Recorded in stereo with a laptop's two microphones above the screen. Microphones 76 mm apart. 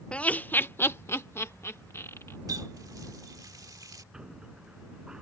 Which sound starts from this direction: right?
A running tap, at 2.5 s.